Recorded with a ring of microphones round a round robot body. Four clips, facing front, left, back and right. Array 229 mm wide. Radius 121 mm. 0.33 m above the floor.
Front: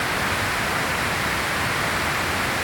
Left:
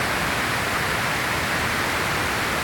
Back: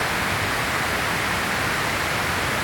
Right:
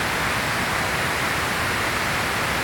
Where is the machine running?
I don't hear a machine running.